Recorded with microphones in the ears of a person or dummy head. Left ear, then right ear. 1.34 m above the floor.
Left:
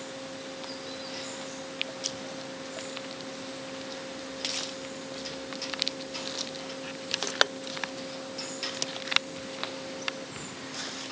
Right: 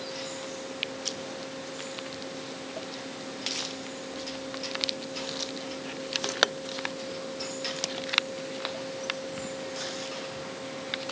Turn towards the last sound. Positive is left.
No sound to turn to.